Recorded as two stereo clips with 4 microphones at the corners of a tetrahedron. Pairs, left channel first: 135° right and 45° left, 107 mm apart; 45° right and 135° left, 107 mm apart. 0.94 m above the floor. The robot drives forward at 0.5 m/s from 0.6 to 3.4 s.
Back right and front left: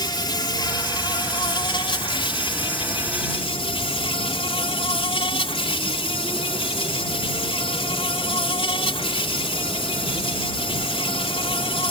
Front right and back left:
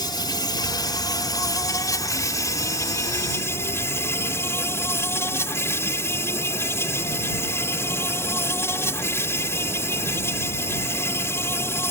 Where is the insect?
90° right; by 11.9 s 110° right.